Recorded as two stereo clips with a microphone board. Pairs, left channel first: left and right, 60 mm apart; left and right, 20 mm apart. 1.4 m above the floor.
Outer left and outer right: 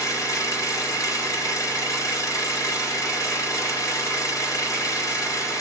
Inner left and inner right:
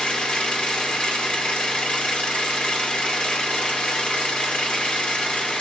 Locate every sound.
0.0 s an engine running: 70° left (ahead or behind), 3.5 m